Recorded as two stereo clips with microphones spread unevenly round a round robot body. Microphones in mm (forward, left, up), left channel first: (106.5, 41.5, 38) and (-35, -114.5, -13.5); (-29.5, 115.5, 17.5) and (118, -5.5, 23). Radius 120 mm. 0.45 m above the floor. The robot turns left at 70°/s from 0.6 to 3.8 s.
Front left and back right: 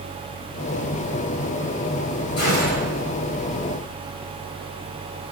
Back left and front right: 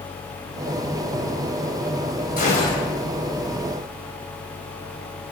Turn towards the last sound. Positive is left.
turn(degrees=0)